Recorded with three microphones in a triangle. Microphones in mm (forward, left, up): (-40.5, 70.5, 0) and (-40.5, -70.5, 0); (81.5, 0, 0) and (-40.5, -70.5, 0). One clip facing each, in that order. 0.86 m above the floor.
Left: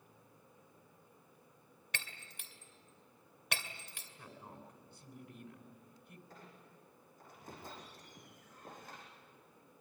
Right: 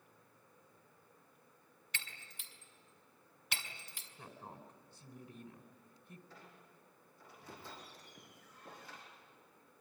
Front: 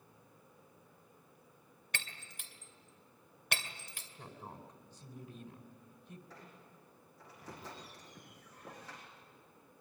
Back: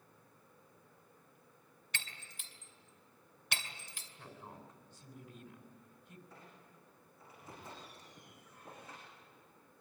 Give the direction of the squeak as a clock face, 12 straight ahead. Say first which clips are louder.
Left 2 dB, front 2 dB; 11 o'clock.